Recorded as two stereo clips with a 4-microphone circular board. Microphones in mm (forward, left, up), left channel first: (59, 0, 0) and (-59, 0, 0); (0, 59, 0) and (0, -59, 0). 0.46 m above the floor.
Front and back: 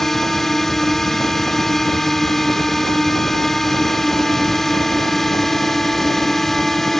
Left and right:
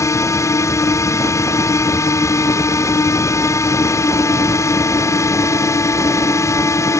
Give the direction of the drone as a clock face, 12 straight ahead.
9 o'clock.